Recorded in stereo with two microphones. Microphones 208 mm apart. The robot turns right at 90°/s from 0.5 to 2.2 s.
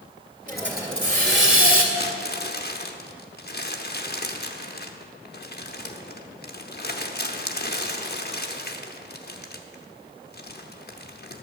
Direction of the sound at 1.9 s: 50° left (ahead or behind).